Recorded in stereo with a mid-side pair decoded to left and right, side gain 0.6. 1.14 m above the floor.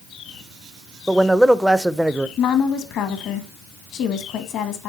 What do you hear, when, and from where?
1.1 s a man speaking: 5° right, 0.5 m
2.4 s a woman speaking: 60° left, 1.3 m